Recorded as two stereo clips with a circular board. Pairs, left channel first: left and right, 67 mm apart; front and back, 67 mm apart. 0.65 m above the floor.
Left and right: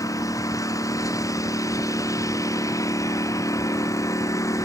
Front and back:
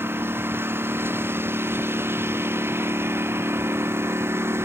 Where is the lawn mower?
125° left; by 4.7 s 130° left.